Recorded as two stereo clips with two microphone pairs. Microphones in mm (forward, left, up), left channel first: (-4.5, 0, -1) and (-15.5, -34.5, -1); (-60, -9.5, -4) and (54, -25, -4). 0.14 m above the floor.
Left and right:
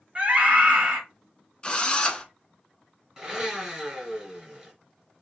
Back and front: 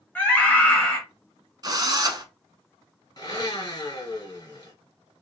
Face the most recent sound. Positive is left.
turn(degrees=180)